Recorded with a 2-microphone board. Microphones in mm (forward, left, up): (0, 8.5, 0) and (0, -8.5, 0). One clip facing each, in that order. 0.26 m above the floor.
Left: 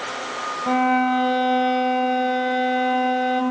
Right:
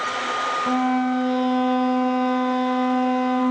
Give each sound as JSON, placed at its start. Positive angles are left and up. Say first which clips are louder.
{"t": 0.7, "sound": "a violin", "louder": "left 5 dB", "side_deg": 35, "distance_m": 0.9}